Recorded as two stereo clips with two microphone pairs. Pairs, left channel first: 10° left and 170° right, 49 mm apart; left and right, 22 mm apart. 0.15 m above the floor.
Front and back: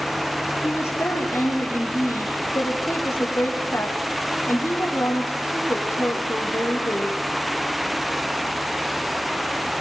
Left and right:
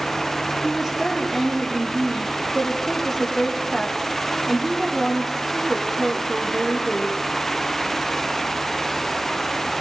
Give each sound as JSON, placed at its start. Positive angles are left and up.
{"t": 0.6, "sound": "a woman speaking", "azimuth_deg": -5, "distance_m": 7.5}